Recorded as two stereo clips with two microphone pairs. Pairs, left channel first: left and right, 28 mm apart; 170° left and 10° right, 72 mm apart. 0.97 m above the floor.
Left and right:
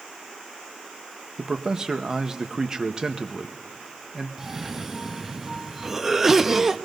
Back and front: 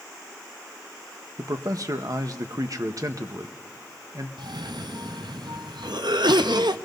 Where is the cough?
15° right, 0.7 m.